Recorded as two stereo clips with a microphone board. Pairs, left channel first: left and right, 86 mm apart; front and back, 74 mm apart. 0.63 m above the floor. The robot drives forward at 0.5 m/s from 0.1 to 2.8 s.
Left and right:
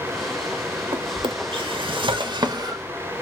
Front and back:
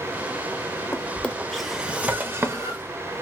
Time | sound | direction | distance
0.9 | a drawer | 60° right | 0.8 m